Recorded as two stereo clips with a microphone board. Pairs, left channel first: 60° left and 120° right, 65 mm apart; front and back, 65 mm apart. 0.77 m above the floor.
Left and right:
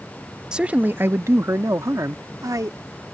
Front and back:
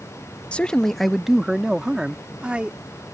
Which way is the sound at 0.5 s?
60° right.